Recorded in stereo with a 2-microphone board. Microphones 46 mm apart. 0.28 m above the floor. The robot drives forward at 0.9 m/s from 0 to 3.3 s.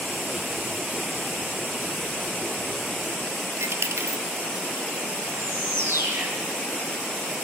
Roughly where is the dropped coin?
Right.